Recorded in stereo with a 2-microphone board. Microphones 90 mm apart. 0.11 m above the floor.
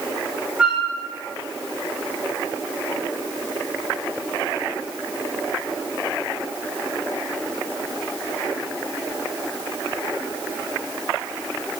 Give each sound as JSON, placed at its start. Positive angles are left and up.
{"t": 0.6, "sound": "a flute", "side_deg": -10, "distance_m": 7.0}